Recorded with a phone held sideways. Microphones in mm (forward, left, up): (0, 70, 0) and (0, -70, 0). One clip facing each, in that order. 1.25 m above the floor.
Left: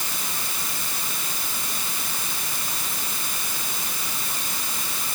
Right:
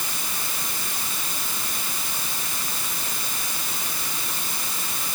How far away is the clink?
I don't hear a clink.